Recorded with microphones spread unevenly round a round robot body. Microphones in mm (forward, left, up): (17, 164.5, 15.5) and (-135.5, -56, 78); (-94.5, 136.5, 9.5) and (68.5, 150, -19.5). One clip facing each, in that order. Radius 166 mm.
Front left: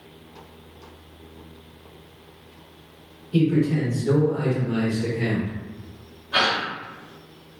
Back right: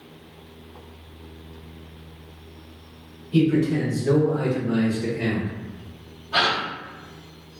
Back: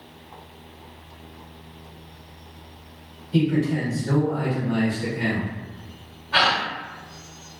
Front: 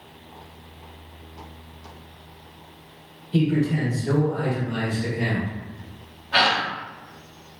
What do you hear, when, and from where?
3.3 s a man speaking: 30° right, 1.5 m; by 5.5 s 100° left, 1.5 m
6.3 s a gasp: 5° right, 1.7 m